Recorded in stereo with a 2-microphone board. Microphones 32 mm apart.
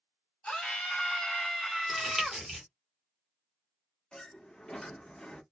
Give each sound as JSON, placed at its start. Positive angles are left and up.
{"t": 0.4, "sound": "a scream", "side_deg": 40, "distance_m": 1.5}
{"t": 1.9, "sound": "crumpling", "side_deg": -5, "distance_m": 1.6}
{"t": 4.1, "sound": "a sliding door", "side_deg": 25, "distance_m": 0.6}